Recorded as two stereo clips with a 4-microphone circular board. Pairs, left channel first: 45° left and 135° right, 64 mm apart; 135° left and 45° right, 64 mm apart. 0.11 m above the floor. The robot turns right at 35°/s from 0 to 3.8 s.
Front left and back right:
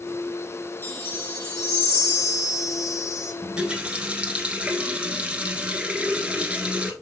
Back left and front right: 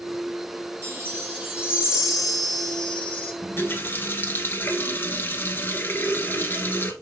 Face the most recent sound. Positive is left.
turn(degrees=165)